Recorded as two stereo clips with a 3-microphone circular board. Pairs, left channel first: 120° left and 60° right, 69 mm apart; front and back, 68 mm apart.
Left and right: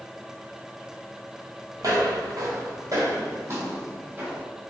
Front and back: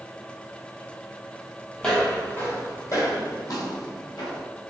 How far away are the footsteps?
About 0.9 m.